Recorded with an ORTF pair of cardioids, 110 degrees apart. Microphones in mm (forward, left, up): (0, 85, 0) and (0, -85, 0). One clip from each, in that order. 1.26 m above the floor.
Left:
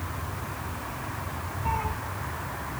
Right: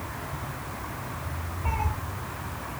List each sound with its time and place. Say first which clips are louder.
1.6 s a cat meowing: left 2 dB; 20° right, 3 m